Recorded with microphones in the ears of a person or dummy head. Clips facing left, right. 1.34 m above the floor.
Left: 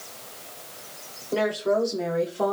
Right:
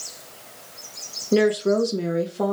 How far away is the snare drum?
No snare drum in this recording.